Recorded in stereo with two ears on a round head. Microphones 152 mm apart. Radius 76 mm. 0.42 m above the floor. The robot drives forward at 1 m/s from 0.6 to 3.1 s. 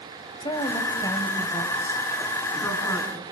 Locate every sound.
0.4 s a woman speaking: 30° left (ahead or behind), 2 m; by 3.2 s 15° left (ahead or behind), 4.5 m